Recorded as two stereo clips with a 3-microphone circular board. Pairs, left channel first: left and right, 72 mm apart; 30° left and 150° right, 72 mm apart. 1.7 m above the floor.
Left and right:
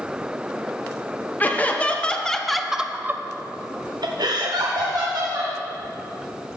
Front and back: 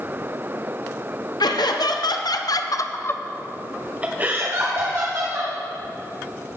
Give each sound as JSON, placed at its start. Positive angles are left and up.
{"t": 1.4, "sound": "laughter", "azimuth_deg": 25, "distance_m": 1.2}